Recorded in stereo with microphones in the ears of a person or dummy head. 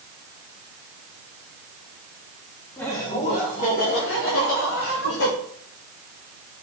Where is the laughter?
10° left (ahead or behind), 3 m; by 5.3 s 80° left, 4 m.